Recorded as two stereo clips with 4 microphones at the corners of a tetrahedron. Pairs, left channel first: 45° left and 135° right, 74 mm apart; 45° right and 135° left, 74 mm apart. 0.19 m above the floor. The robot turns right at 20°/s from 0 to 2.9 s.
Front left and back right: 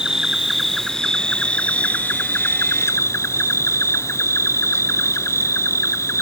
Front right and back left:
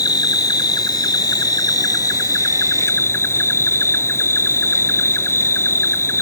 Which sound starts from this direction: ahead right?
An insect, at 0.0 s.